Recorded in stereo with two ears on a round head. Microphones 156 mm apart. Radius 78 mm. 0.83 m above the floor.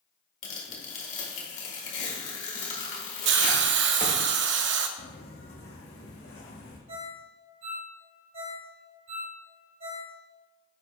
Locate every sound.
0.4 s tearing paper: 45° left (ahead or behind), 1.8 m
3.2 s a hiss: 70° right (ahead or behind), 0.5 m
5.0 s footsteps: 50° left (ahead or behind), 1.7 m; by 6.8 s 70° left (ahead or behind), 2.5 m
6.9 s a ringtone: 50° right (ahead or behind), 2.5 m